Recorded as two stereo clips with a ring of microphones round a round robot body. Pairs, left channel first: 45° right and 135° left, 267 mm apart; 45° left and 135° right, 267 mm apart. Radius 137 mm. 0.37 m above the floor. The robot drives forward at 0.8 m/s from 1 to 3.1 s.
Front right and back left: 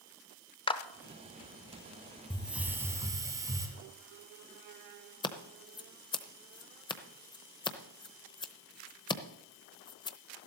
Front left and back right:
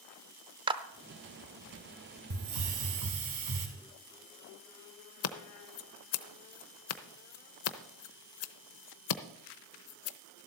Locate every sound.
0.7 s a clap: 90° right, 0.7 m
2.3 s a hiss: 135° right, 1.8 m; by 3.7 s 145° right, 2.5 m
5.2 s scissors: 25° left, 0.8 m